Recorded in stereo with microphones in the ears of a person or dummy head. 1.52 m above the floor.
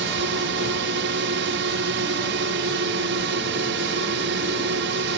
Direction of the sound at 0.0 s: 70° right (ahead or behind).